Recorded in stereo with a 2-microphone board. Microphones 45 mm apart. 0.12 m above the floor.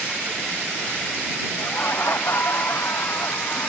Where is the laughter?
55° left (ahead or behind).